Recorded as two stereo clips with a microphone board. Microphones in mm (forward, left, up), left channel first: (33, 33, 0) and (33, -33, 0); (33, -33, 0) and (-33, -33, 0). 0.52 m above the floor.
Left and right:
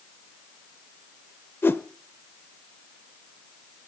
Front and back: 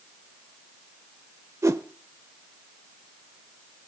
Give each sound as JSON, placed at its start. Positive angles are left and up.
{"t": 1.6, "sound": "a whoosh", "azimuth_deg": 140, "distance_m": 0.6}